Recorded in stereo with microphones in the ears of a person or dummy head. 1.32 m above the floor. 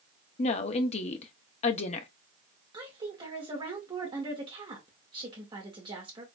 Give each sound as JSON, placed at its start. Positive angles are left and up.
{"t": 0.4, "sound": "a woman speaking", "side_deg": 35, "distance_m": 0.7}
{"t": 2.7, "sound": "a woman speaking", "side_deg": -25, "distance_m": 2.0}